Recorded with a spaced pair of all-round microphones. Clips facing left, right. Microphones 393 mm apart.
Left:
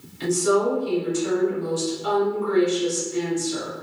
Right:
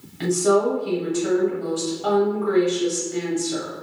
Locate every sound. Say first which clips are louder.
0.2 s a woman speaking: right 2 dB; 70° right (ahead or behind), 1.0 m